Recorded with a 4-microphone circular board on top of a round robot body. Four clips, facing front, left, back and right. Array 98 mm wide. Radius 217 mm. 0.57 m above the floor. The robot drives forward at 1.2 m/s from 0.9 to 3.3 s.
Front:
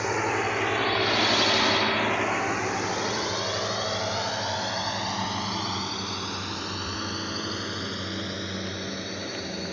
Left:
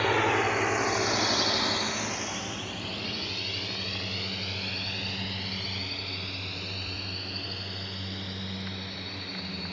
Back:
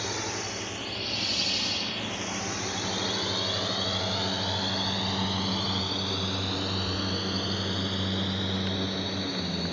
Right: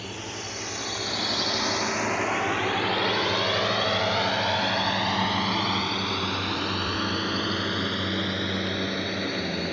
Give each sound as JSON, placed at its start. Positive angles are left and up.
{"t": 0.0, "sound": "a drone", "azimuth_deg": 60}